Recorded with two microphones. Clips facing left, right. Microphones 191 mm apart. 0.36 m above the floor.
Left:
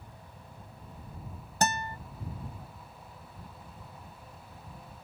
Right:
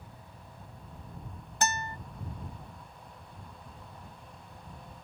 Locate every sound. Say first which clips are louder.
1.6 s a guitar: left 2 dB; 40° left (ahead or behind)